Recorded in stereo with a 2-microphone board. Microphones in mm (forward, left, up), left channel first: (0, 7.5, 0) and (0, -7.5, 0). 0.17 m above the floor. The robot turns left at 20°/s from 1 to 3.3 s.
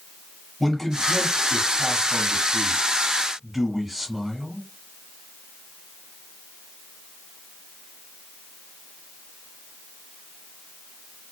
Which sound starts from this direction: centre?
A man speaking, at 0.6 s.